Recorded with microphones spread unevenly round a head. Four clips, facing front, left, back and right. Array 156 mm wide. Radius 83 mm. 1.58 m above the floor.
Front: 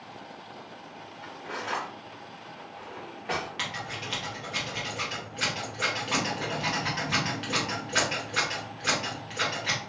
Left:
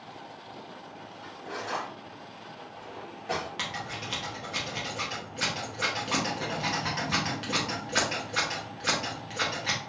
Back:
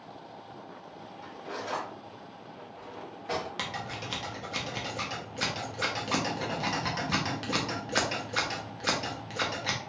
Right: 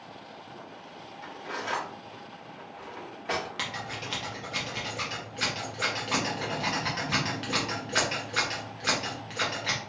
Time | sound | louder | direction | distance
1.2 | cutlery clinking | right 2 dB, front 2 dB | 45° right | 1.1 m
3.6 | scissors | even, front 1 dB | 175° left | 0.7 m